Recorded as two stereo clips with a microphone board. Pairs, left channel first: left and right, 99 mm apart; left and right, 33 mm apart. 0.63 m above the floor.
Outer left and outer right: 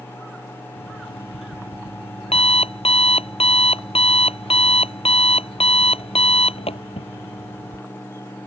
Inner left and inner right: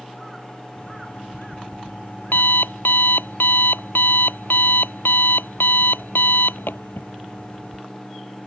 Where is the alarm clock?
85° left.